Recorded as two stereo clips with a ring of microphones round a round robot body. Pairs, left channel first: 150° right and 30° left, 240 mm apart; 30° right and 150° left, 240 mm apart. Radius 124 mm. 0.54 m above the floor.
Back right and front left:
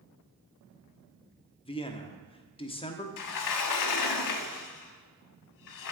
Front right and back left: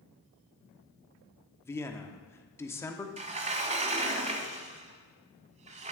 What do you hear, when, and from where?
1.6 s a man speaking: 100° right, 1.1 m
3.2 s a sliding door: 145° right, 0.8 m